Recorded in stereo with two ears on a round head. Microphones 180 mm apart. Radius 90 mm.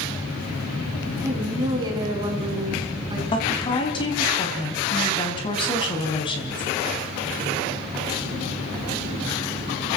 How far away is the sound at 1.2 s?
About 5 m.